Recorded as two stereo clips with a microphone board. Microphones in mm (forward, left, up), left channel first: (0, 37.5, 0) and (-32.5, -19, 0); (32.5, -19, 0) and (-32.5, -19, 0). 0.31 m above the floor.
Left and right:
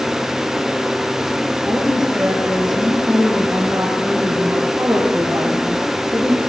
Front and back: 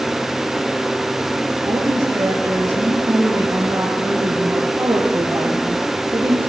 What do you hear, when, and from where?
1.6 s a woman speaking: 155° left, 5.5 m